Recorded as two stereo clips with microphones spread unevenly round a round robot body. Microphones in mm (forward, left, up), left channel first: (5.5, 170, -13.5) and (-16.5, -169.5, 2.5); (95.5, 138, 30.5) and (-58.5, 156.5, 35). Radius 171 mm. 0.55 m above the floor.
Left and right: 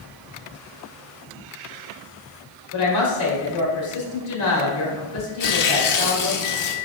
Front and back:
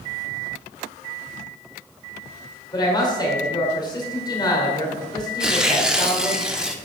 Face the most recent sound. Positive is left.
turn(degrees=85)